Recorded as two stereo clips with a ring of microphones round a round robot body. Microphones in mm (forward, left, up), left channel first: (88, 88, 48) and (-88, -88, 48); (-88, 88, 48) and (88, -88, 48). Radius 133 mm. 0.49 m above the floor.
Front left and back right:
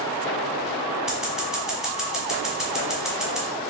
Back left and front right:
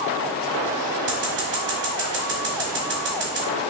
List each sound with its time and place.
1.1 s scissors: 50° right, 1.3 m